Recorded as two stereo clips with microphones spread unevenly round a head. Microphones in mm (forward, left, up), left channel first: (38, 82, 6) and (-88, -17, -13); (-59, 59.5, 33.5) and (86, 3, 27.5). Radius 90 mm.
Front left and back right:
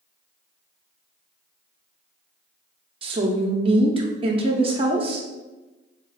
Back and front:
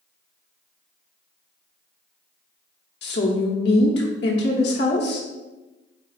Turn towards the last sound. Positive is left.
turn(degrees=160)